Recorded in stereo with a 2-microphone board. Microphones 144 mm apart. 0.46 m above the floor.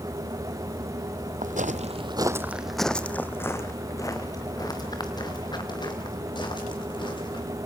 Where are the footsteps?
65° right (ahead or behind), 0.9 m; by 7.5 s 35° left (ahead or behind), 5.5 m.